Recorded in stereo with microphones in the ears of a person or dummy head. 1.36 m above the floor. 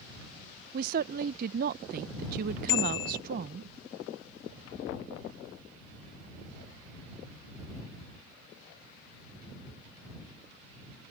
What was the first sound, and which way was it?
A woman speaking, 50° right (ahead or behind).